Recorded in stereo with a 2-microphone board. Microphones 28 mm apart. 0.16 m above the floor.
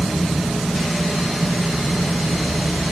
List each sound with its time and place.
Only background noise.